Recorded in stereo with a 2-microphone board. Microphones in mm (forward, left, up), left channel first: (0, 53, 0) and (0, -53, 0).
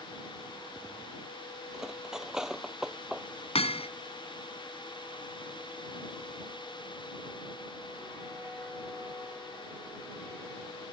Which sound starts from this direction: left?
Hammering, at 3.5 s.